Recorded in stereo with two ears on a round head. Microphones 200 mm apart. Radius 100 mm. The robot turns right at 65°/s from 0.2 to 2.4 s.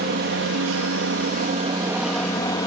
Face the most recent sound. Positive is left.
turn(degrees=20)